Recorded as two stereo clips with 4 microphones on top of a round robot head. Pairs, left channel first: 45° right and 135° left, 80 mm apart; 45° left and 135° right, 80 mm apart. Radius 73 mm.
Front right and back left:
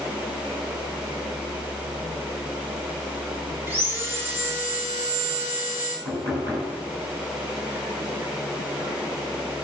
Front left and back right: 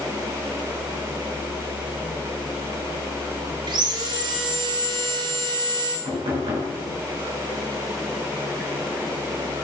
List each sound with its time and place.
3.7 s sawing: 160° right, 3.5 m
6.0 s knocking: 160° right, 7.5 m